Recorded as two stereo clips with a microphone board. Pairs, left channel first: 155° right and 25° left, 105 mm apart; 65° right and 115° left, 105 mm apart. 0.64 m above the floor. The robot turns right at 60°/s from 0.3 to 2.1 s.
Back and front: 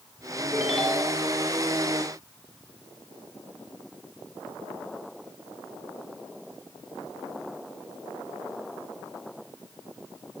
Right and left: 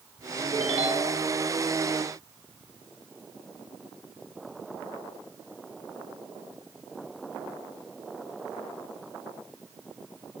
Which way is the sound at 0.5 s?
100° left.